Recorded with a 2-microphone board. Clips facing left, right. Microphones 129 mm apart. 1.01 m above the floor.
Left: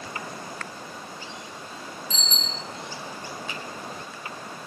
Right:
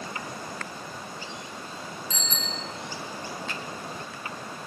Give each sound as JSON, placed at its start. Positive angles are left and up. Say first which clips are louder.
{"t": 2.1, "sound": "a bicycle bell", "louder": "right 1 dB", "side_deg": 25, "distance_m": 7.5}
{"t": 3.5, "sound": "a finger snap", "louder": "even", "side_deg": 10, "distance_m": 4.5}